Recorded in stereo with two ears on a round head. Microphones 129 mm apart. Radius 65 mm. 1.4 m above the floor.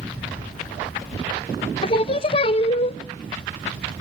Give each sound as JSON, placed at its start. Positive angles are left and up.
{"t": 1.8, "sound": "singing", "side_deg": 40, "distance_m": 0.8}